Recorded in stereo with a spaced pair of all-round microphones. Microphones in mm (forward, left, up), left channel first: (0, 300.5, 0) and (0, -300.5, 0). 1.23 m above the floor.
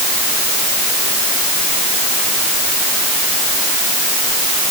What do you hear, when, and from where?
Only background noise.